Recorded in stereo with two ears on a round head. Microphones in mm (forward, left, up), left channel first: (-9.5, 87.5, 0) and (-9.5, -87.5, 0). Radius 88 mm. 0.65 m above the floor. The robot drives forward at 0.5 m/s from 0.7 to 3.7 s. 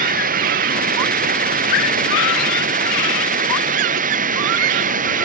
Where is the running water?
45° right (ahead or behind).